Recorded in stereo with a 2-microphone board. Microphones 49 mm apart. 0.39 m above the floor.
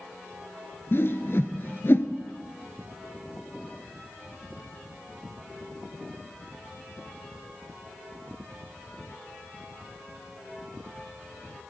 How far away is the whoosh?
About 1.1 m.